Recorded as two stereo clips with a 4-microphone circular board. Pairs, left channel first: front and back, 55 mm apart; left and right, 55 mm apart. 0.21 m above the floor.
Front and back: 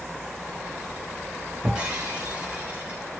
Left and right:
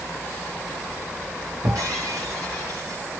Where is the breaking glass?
105° right, 2.5 m.